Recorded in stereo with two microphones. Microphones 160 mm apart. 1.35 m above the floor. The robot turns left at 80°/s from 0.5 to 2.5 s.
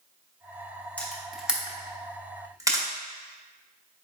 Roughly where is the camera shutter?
Centre.